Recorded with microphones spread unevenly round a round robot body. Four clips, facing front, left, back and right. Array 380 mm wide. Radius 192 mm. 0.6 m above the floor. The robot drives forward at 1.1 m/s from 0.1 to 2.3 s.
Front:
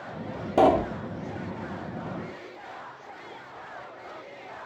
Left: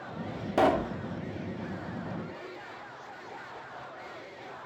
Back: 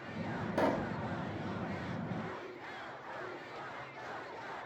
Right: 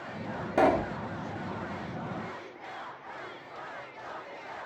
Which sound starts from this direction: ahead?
A pop, at 0.6 s.